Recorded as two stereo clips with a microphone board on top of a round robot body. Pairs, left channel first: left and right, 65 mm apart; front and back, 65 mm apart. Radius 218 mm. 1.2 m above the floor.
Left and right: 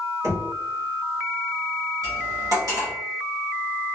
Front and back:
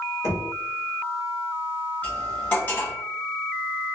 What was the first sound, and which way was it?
Knocking, 45° right.